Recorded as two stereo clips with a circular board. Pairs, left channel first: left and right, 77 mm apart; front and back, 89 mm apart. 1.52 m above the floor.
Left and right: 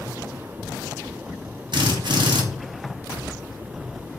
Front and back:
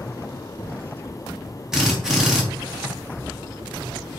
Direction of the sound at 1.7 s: 95° right.